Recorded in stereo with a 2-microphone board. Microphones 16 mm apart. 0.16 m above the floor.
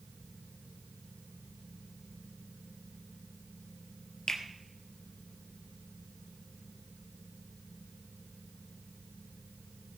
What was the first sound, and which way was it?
A finger snap, 50° left (ahead or behind).